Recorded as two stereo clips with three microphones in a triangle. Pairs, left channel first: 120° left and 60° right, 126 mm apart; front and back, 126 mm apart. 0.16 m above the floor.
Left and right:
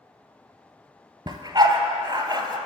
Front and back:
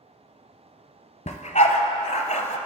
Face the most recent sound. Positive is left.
turn(degrees=-10)